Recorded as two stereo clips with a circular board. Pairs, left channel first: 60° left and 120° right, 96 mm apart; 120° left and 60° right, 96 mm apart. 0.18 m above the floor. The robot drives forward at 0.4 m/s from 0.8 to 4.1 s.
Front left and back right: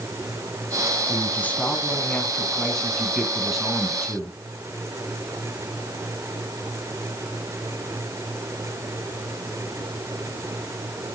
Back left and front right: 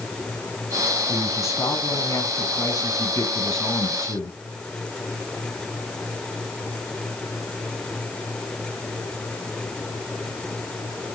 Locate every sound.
1.1 s a man speaking: 105° left, 1.3 m; by 4.4 s 155° left, 1.9 m